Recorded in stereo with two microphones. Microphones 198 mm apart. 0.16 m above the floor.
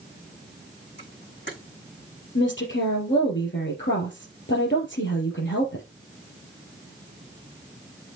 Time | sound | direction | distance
1.0 | a camera shutter | 65° left (ahead or behind) | 5.5 m
2.4 | a woman speaking | 70° left (ahead or behind) | 4.5 m